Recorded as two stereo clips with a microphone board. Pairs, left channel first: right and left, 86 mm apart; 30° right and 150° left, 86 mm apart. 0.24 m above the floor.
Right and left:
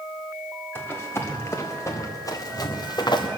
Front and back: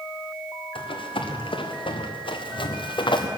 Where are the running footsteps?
25° right, 2.5 m; by 3.3 s 55° right, 1.7 m.